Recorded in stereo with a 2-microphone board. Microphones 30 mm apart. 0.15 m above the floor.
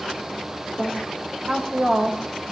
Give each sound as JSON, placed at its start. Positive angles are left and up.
{"t": 0.8, "sound": "a woman speaking", "side_deg": -70, "distance_m": 7.0}